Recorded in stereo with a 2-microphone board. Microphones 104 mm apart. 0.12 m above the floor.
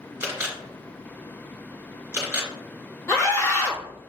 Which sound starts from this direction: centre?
A camera shutter, at 0.2 s.